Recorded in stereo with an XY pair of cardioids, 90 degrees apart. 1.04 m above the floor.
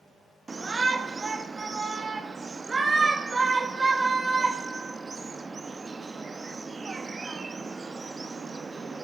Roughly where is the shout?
Ahead right.